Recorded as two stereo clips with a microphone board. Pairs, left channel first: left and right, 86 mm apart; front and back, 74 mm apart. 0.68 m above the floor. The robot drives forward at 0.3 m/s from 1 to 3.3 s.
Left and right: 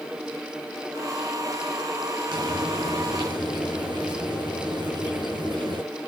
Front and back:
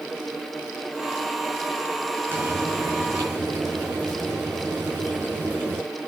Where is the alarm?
No alarm in this recording.